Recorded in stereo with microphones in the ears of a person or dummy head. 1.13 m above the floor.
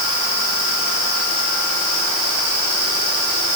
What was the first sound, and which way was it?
Only background noise.